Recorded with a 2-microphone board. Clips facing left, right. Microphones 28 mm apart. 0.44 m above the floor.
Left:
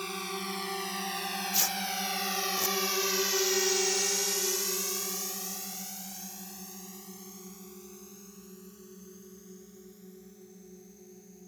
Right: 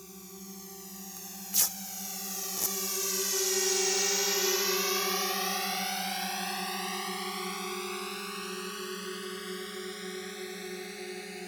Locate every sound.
0.0 s a drone: 65° left (ahead or behind); by 11.5 s 80° right
1.2 s tearing paper: 10° left (ahead or behind)